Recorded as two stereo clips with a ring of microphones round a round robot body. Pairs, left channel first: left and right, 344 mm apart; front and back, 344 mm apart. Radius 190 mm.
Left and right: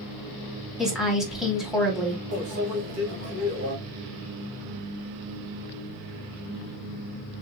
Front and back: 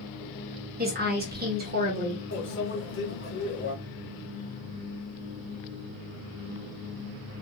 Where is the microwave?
50° right, 1.4 m.